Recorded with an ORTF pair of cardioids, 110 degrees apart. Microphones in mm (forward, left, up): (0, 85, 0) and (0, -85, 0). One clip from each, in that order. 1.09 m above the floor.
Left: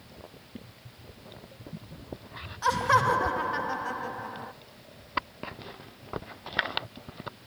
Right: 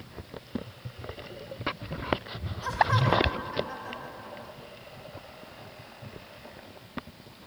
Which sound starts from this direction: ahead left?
Laughter, at 2.6 s.